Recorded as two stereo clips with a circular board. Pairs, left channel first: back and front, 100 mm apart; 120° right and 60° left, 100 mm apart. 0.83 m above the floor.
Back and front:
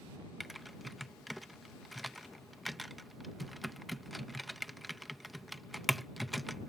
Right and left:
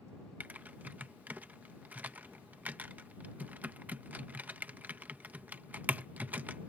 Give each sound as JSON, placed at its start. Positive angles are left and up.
{"t": 0.4, "sound": "typing on a keyboard", "azimuth_deg": 90}